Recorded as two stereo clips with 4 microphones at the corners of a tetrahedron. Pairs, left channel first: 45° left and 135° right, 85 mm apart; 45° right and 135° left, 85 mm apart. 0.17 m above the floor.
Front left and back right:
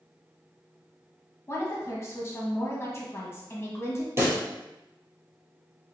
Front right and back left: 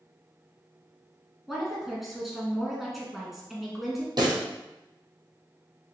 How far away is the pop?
About 1.9 m.